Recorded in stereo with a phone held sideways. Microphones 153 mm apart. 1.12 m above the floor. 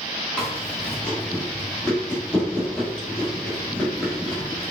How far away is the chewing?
About 1.4 m.